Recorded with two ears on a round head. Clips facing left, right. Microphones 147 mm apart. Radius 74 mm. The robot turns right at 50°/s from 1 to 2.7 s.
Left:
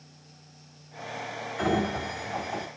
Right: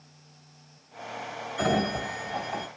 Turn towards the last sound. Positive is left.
turn(degrees=0)